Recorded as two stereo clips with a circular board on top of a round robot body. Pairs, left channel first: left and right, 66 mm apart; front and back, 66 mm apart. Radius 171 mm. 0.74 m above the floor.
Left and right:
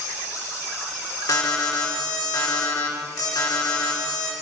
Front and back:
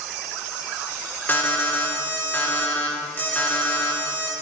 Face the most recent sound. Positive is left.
turn(degrees=60)